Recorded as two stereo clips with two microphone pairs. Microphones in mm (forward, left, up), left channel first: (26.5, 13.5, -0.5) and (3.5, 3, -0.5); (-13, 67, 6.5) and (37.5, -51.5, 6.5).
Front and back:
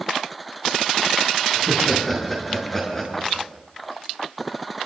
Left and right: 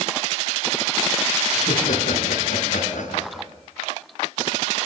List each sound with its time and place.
1.6 s laughter: 105° left, 8.5 m; by 3.5 s 100° left, 7.5 m